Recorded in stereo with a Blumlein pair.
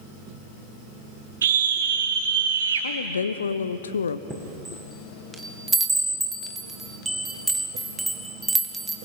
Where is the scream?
65° right, 5.5 m; by 2.9 s 70° right, 3.5 m.